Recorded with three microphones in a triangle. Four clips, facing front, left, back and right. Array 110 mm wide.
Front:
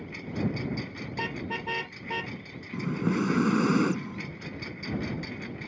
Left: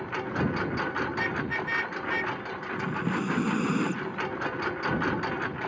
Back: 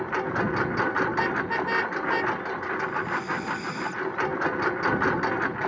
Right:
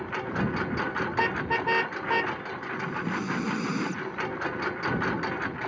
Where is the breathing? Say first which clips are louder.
Left 2 dB, front 3 dB; 10° left.